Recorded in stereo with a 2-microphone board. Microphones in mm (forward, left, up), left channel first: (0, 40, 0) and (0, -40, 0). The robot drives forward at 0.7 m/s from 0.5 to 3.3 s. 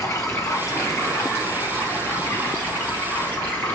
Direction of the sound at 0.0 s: 40° left (ahead or behind).